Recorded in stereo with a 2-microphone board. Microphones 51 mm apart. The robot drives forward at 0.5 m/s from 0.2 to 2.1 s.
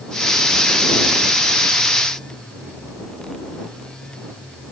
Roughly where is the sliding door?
I don't hear a sliding door.